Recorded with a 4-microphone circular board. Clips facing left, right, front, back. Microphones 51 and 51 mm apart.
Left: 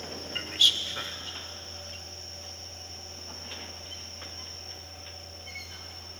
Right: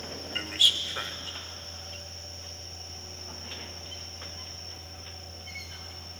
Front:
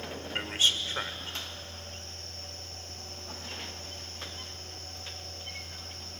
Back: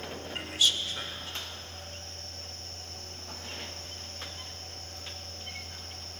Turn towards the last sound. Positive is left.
turn(degrees=-20)